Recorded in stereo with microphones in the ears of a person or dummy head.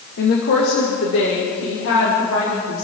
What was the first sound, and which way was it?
A woman speaking, 65° left (ahead or behind).